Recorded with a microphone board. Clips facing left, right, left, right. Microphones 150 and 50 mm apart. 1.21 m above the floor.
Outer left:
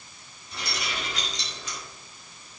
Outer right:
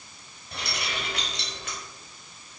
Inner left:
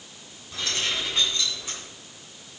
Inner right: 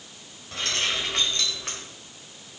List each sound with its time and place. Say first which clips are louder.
0.5 s keys jangling: even, inner right 1 dB; 65° right (ahead or behind), 4.5 m; by 1.8 s 60° right (ahead or behind), 4 m